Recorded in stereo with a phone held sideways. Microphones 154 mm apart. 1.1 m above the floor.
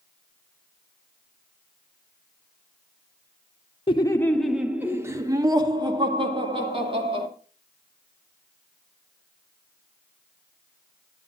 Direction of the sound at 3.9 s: 35° left (ahead or behind).